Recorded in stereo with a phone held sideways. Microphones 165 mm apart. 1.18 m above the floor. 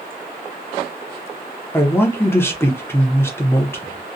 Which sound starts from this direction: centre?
A man speaking, at 1.7 s.